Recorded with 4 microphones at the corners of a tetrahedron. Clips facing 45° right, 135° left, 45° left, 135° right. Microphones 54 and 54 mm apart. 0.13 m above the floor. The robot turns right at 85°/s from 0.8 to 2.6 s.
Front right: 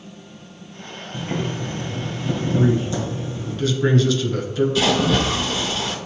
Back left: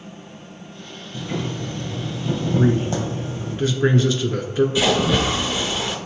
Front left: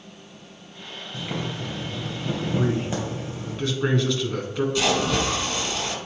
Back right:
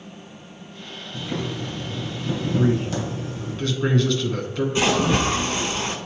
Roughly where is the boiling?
Ahead right.